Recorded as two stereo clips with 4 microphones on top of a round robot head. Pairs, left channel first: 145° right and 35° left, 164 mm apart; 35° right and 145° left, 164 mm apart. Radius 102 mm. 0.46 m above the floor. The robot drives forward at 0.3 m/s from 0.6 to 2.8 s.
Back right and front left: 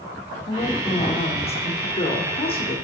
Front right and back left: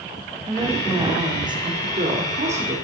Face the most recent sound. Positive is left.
turn(degrees=175)